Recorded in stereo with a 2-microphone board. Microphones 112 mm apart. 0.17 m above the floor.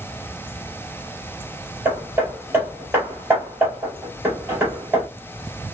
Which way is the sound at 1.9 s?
20° right (ahead or behind).